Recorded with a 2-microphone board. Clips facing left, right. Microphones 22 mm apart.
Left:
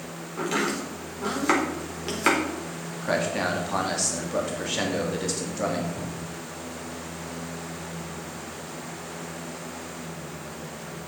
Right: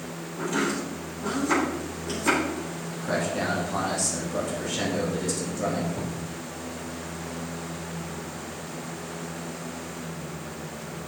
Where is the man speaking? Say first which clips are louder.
Left 2 dB; 35° left (ahead or behind), 2.5 m.